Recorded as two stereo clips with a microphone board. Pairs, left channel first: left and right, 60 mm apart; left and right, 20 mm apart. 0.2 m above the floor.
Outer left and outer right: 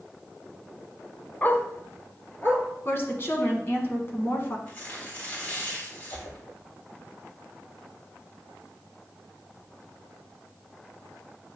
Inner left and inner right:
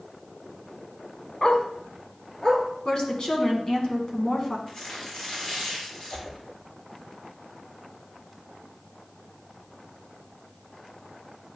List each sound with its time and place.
1.4 s a dog barking: 30° left (ahead or behind), 0.6 m; by 2.6 s 35° left (ahead or behind), 1.8 m
2.9 s a woman speaking: 40° left (ahead or behind), 1.4 m
4.7 s tearing paper: 35° left (ahead or behind), 3 m
6.1 s a whoosh: 80° left, 3 m